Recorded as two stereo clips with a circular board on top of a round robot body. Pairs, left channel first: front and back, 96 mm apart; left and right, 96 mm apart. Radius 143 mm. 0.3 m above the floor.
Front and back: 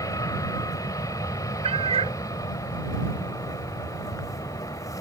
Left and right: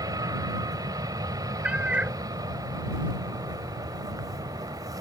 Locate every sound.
0.0 s an aircraft: 50° right
1.6 s a cat meowing: 170° right